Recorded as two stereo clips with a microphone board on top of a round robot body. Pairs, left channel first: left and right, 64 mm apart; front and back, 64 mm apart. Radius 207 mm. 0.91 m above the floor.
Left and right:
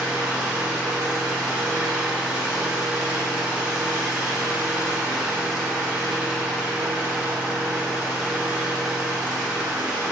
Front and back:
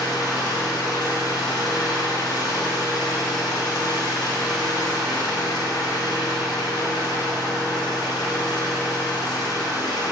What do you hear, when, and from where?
0.0 s an engine running: 10° right, 2 m